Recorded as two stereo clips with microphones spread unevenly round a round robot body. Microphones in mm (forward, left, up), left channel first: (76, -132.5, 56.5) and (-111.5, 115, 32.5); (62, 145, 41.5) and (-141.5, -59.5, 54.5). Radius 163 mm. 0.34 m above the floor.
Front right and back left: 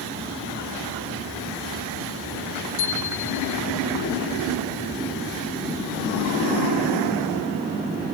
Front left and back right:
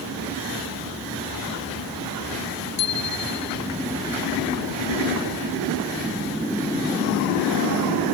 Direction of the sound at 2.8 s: Straight ahead.